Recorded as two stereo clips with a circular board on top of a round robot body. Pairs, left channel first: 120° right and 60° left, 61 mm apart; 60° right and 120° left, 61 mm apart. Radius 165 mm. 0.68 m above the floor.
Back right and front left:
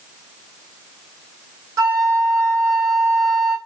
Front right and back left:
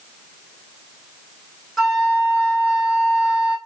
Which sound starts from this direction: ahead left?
A flute, at 1.8 s.